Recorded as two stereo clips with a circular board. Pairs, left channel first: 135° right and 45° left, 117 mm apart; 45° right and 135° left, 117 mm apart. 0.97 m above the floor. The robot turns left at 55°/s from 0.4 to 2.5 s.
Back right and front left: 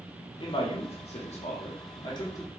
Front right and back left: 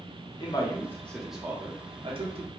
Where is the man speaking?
90° right, 0.8 m; by 2.5 s 155° left, 0.8 m.